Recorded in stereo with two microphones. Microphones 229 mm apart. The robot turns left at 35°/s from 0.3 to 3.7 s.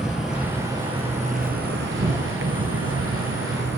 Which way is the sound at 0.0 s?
5° right.